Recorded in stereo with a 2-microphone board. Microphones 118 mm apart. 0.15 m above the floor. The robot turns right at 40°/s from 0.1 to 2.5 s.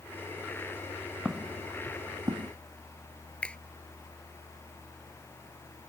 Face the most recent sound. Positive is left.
turn(degrees=10)  # may be behind; listen again after turning